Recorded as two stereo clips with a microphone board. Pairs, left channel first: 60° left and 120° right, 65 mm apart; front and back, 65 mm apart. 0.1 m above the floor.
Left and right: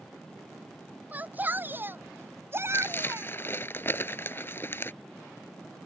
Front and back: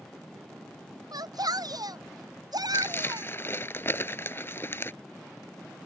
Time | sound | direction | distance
1.1 | a shout | 175° left | ?
2.7 | crumpling | 30° left | ?